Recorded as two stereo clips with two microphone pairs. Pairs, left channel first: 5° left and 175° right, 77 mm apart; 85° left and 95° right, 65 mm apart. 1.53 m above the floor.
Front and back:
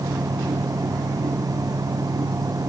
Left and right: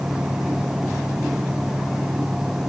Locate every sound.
Only background noise.